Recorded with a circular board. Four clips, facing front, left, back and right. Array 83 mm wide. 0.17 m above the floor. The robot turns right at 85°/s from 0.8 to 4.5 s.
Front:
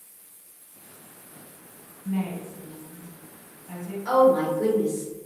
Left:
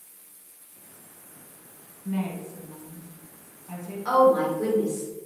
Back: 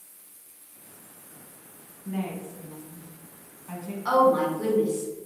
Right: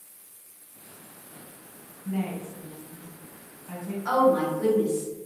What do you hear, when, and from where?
2.0 s a woman speaking: 45° left, 1.3 m; by 4.0 s 155° right, 1.3 m
4.0 s a woman speaking: 165° left, 1.6 m; by 5.1 s 155° right, 1.6 m